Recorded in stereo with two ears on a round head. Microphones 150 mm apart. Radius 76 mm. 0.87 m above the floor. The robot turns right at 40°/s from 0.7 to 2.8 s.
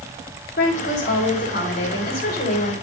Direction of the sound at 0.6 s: 55° left.